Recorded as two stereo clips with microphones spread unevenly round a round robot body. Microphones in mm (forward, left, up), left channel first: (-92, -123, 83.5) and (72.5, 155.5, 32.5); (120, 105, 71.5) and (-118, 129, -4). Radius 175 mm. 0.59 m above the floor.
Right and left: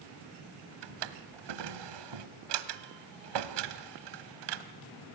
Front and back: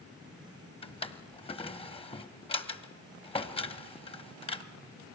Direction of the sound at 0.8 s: 60° left.